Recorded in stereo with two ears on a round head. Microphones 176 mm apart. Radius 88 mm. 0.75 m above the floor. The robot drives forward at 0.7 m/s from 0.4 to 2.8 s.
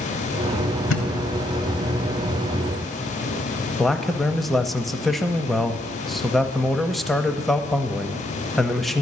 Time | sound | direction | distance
0.9 | a thud | 75° left (ahead or behind) | 1.2 m
3.8 | a man speaking | centre (ahead or behind) | 0.6 m